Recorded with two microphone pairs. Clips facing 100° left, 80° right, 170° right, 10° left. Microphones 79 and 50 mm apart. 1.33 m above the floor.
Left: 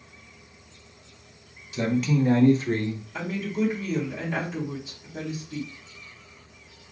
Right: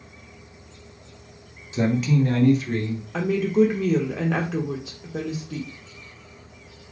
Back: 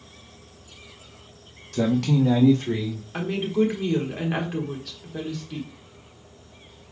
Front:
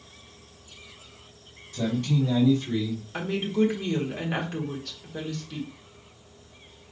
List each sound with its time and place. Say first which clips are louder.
1.7 s a man speaking: right 2 dB, back 5 dB; 145° right, 0.8 m; by 3.0 s 145° left, 1.6 m
3.1 s a woman speaking: right 10 dB, back 2 dB; 90° right, 1.5 m